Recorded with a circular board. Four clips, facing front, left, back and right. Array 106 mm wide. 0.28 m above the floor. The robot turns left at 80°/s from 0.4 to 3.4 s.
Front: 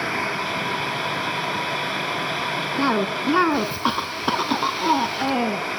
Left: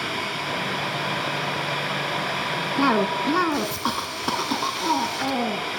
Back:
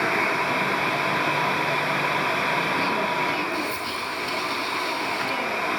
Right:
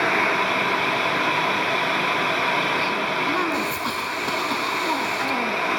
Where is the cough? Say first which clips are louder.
Left 3 dB, front 2 dB; 60° left, 3 m; by 5.6 s 10° left, 3 m.